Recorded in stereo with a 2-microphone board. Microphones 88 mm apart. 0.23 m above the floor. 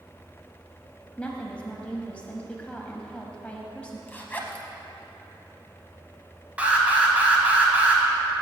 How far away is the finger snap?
I don't hear a finger snap.